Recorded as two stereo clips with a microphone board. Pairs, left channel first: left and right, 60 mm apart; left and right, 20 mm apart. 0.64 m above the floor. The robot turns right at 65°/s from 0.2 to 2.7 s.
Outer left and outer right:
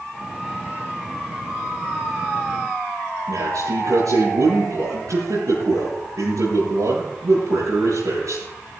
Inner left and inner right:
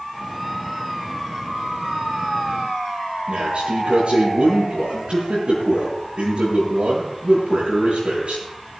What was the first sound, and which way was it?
A man speaking, 75° right (ahead or behind).